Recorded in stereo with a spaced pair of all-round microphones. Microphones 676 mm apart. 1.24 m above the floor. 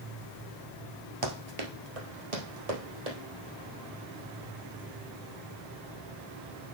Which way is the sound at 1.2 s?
40° right (ahead or behind).